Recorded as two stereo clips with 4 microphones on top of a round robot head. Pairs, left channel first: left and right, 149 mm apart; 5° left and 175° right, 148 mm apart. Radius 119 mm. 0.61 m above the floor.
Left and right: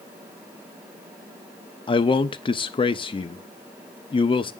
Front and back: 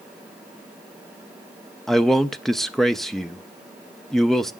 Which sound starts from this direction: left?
A man speaking, at 1.9 s.